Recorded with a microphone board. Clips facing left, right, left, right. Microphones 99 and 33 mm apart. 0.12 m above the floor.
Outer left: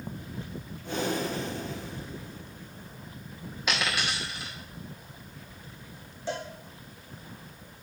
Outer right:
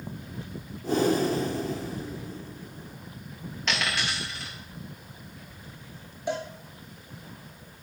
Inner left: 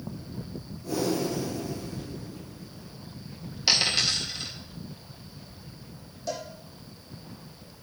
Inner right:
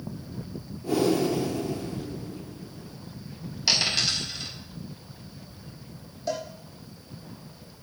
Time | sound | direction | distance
0.8 | breathing | 35° right (ahead or behind) | 1.2 m
3.7 | a dropped coin | 10° left (ahead or behind) | 3.5 m
6.3 | a cowbell | 15° right (ahead or behind) | 2.5 m